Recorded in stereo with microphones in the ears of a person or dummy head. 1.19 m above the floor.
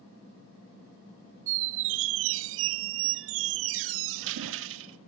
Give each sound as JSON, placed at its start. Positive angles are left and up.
{"t": 1.5, "sound": "a squeak", "side_deg": -70, "distance_m": 0.6}